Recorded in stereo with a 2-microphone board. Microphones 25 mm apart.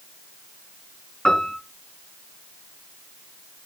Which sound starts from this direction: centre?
A piano, at 1.2 s.